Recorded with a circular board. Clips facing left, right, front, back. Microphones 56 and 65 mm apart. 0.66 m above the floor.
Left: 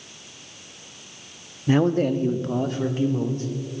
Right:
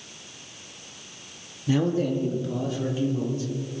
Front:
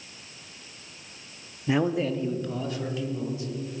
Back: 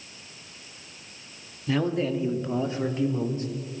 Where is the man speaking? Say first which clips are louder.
Left 4 dB, front 1 dB; 60° left, 0.8 m; by 3.5 s 135° left, 1.8 m.